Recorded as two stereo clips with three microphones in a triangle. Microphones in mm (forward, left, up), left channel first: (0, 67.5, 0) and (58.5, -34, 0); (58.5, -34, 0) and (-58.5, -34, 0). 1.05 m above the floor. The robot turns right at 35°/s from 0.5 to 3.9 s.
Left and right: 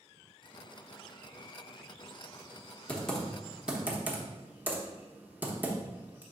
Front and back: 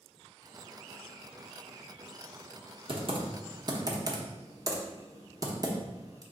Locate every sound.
2.9 s typing on a keyboard: 165° right, 0.8 m; by 6.2 s 130° right, 0.8 m